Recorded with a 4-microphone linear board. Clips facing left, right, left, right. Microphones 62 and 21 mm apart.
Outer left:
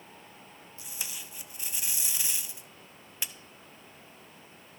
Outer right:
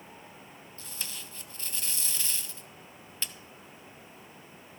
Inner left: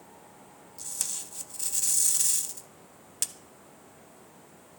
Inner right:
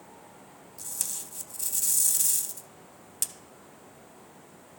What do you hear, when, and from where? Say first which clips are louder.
0.8 s tape being pulled: even, inner left 1 dB; 15° left (ahead or behind), 0.5 m